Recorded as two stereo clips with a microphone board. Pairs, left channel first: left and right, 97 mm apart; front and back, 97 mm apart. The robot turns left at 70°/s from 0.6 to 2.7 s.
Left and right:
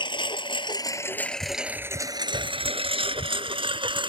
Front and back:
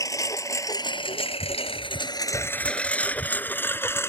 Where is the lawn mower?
55° left; by 4.1 s 65° right.